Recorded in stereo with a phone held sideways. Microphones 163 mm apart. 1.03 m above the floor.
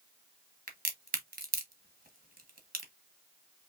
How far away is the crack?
About 1.2 m.